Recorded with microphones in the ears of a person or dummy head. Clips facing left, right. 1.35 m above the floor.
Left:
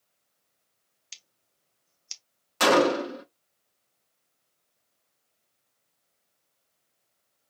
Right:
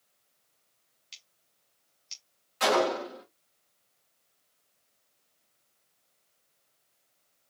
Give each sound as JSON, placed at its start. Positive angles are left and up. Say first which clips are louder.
{"t": 1.1, "sound": "scissors", "louder": "left 3 dB", "side_deg": 60, "distance_m": 0.9}
{"t": 2.6, "sound": "a gunshot", "louder": "left 5 dB", "side_deg": 70, "distance_m": 1.3}